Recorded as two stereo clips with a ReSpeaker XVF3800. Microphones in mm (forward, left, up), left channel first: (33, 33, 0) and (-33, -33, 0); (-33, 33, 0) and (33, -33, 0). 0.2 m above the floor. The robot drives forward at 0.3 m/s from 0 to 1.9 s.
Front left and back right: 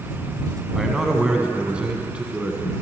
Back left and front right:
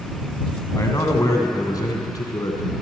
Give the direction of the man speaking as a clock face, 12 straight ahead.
7 o'clock.